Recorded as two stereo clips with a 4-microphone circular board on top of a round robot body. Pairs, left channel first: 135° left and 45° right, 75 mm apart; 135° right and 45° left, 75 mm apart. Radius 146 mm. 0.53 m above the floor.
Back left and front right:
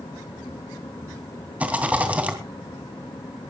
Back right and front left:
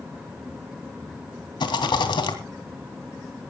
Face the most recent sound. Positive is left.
turn(degrees=-115)